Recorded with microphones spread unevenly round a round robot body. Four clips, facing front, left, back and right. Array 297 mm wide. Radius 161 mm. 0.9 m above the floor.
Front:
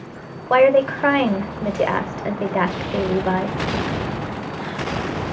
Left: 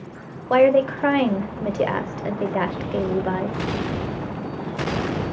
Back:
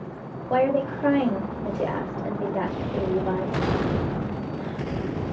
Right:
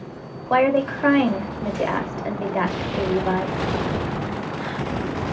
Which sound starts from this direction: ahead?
A woman speaking, at 0.5 s.